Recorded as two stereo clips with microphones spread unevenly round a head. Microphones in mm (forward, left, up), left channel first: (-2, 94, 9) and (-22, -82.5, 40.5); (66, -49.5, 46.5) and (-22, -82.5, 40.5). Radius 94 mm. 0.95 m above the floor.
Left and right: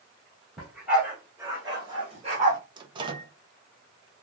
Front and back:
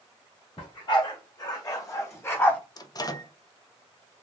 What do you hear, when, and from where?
0.6 s a dog barking: 10° right, 2.5 m; by 2.6 s 50° right, 1.4 m
2.8 s a microwave: 30° right, 0.7 m